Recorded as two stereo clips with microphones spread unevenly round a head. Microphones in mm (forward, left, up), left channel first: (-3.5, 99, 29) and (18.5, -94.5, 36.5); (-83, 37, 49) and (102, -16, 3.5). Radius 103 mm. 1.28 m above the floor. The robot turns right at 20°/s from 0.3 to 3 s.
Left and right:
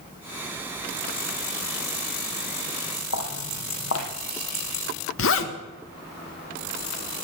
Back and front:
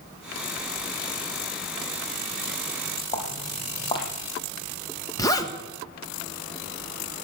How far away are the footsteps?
About 3 m.